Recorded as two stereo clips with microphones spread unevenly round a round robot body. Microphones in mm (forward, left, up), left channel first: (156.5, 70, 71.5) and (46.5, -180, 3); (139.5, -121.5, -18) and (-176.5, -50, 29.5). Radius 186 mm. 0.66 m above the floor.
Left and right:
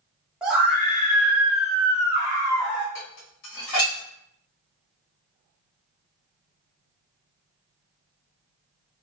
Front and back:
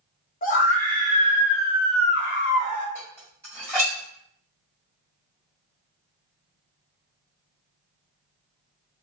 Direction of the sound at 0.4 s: 45° right.